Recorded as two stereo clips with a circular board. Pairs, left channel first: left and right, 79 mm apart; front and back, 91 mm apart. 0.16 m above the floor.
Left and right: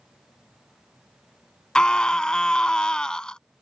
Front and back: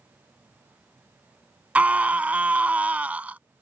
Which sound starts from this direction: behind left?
A scream, at 1.8 s.